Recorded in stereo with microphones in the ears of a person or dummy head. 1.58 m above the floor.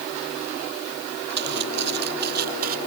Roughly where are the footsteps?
Right.